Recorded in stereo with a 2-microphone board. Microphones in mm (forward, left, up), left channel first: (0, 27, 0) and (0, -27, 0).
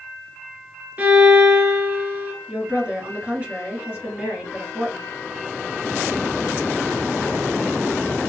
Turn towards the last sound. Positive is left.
turn(degrees=-25)  # may be behind; listen again after turning